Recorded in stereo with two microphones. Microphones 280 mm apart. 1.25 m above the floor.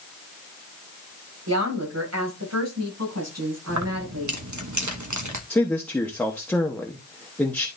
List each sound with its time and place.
1.5 s a woman speaking: 70° right (ahead or behind), 5.5 m; by 4.4 s 65° right (ahead or behind), 7.5 m
3.7 s keys jangling: 85° right, 1.1 m
5.5 s a man speaking: 5° left (ahead or behind), 1.1 m